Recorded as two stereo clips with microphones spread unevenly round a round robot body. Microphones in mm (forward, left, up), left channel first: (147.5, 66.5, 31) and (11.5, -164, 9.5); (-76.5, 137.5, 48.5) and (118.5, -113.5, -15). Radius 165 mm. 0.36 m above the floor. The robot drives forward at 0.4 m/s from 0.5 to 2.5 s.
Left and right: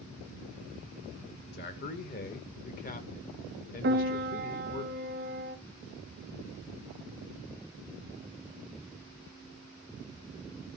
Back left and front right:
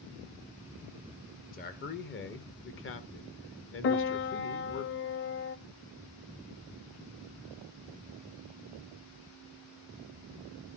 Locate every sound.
1.5 s a man speaking: 65° left, 1.6 m; by 4.8 s 95° left, 1.6 m
3.8 s a piano: 170° right, 0.7 m